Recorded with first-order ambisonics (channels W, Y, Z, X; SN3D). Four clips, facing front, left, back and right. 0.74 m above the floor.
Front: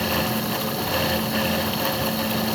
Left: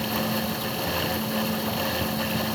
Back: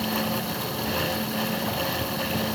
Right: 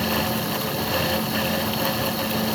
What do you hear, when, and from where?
Only background noise.